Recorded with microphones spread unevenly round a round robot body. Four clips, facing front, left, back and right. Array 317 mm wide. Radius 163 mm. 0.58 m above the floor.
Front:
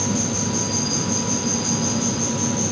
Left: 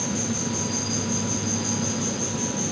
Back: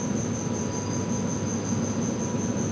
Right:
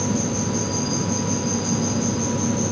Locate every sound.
0.0 s an insect: 10° left